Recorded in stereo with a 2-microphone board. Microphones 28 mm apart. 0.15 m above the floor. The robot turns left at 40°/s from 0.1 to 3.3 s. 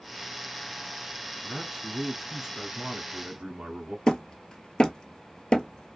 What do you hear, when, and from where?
1.4 s a man speaking: 10° right, 1.5 m; by 4.0 s 85° right, 1.5 m
4.1 s hammering: 30° left (ahead or behind), 0.7 m